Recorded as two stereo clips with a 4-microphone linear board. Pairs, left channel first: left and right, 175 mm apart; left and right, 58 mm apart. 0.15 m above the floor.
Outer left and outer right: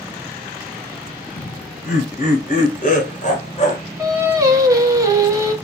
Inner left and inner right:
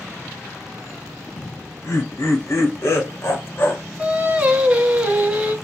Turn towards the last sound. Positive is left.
turn(degrees=-20)  # may be behind; listen again after turning